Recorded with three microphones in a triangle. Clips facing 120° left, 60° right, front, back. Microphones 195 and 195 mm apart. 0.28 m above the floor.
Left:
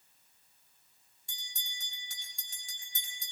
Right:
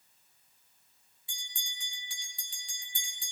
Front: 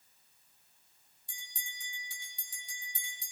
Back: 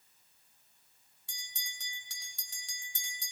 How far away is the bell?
About 6.5 m.